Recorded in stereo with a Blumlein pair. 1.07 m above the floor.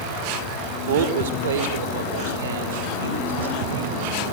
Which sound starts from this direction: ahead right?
A man speaking, at 0.9 s.